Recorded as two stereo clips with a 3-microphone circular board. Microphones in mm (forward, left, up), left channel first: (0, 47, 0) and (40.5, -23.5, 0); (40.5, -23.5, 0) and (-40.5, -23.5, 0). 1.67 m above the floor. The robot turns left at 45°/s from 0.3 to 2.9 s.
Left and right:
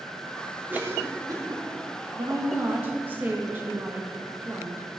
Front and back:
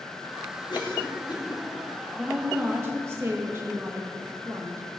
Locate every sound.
0.7 s a cough: 5° left, 2.5 m; by 1.7 s 35° right, 2.5 m
2.1 s a woman speaking: 90° right, 1.8 m; by 4.9 s 125° right, 1.8 m